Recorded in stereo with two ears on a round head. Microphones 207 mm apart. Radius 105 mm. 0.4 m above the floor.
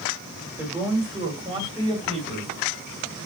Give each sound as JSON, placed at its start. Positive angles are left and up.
{"t": 0.6, "sound": "a man speaking", "side_deg": -10, "distance_m": 1.8}